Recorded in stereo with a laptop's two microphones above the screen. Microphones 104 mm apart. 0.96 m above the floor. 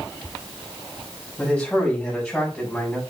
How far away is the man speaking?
About 6.5 m.